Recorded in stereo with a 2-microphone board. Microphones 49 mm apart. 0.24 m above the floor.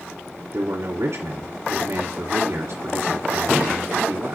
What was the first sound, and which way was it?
A man speaking, 60° right (ahead or behind).